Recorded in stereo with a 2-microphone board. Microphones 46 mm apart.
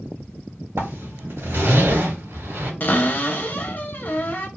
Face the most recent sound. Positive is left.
turn(degrees=40)  # may be behind; listen again after turning